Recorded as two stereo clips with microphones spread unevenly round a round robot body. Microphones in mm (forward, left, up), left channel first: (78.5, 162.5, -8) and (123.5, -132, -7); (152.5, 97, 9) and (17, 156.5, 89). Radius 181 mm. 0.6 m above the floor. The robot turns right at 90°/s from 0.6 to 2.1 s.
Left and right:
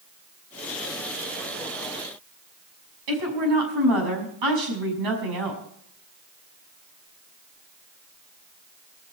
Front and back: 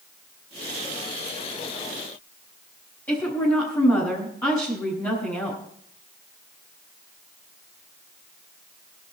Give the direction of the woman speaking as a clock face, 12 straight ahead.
3 o'clock.